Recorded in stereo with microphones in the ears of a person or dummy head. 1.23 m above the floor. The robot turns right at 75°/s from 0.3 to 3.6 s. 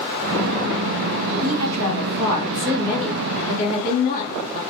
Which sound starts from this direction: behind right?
A woman speaking, at 1.4 s.